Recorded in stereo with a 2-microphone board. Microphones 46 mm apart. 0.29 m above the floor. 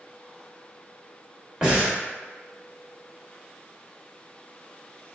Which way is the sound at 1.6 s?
15° right (ahead or behind).